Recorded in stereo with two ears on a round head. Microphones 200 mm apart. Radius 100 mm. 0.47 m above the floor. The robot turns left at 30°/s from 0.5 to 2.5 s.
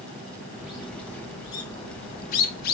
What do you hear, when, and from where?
0.6 s a bird: 10° right (ahead or behind), 1.1 m; by 2.7 s 45° left (ahead or behind), 1.1 m